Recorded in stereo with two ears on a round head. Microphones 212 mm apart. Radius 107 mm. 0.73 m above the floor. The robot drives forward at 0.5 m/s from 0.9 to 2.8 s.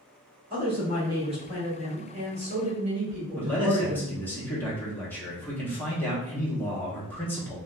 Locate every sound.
0.5 s a woman speaking: 20° right (ahead or behind), 1.6 m; by 4.2 s 30° right (ahead or behind), 1.2 m
3.4 s a man speaking: 10° left (ahead or behind), 0.9 m